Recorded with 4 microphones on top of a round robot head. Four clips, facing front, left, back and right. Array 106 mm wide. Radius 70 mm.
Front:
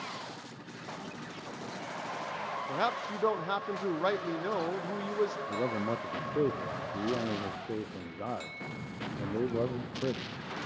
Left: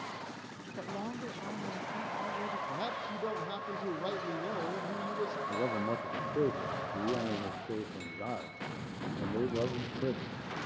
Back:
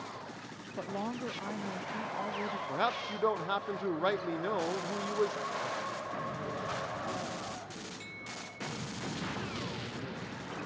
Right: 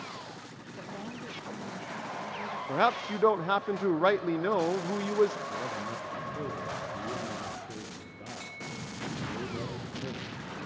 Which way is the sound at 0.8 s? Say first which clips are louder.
Left 2 dB, back 7 dB; 160° left.